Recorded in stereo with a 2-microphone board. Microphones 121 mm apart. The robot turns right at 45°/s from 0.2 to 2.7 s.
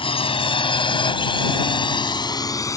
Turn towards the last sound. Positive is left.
turn(degrees=30)  # may be behind; listen again after turning